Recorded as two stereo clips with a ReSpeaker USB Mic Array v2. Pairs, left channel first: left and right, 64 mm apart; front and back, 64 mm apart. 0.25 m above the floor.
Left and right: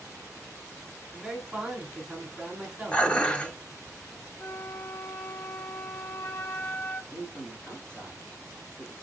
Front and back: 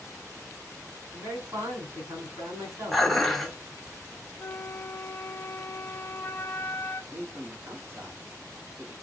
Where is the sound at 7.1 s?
160° left, 1.6 m.